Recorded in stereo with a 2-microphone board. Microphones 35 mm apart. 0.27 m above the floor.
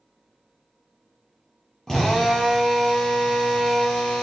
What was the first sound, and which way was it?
A drill, 15° left (ahead or behind).